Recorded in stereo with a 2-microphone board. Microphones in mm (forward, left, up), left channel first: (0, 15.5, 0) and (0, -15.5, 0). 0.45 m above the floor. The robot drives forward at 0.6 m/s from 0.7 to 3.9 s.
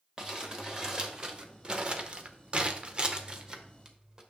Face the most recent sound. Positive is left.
turn(degrees=-25)  # may be behind; listen again after turning